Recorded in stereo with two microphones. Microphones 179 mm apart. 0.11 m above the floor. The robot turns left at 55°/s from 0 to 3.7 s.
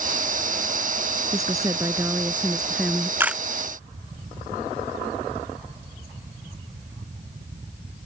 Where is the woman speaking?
20° right (ahead or behind); by 3.1 s 5° left (ahead or behind).